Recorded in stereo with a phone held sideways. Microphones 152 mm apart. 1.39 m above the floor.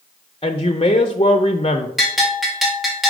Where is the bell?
Centre (ahead or behind), 1.9 m.